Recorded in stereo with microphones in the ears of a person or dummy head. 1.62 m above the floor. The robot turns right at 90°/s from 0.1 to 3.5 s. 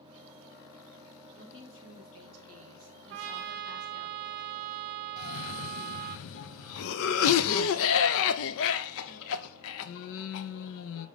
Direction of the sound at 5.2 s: 65° left (ahead or behind).